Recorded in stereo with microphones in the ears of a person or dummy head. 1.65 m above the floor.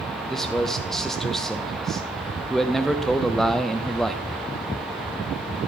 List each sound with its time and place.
0.3 s a man speaking: 5° left (ahead or behind), 0.7 m